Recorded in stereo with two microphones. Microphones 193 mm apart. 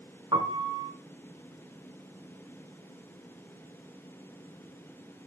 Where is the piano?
25° right (ahead or behind), 2 m.